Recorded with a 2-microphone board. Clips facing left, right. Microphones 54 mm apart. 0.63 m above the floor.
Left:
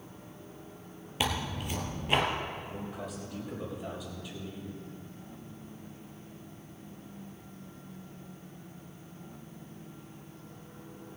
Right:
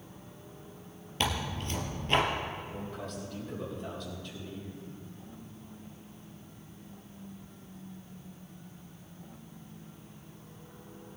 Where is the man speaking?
10° left (ahead or behind), 3.5 m.